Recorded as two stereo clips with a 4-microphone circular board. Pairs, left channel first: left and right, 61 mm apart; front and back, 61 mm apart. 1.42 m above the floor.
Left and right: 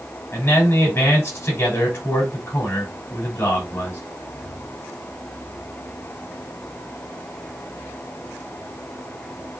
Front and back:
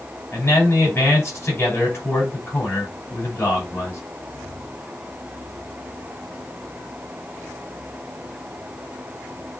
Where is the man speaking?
45° left, 6 m.